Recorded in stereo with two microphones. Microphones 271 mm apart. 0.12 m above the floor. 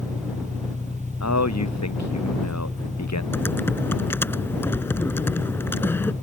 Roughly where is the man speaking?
Left.